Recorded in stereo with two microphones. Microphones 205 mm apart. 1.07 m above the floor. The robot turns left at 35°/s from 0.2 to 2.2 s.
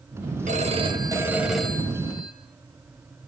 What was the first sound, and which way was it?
A phone ringing, 140° right.